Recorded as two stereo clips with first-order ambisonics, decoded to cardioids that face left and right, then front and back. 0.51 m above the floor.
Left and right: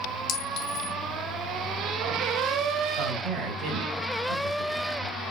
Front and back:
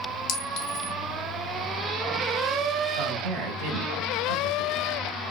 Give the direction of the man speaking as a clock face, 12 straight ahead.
5 o'clock.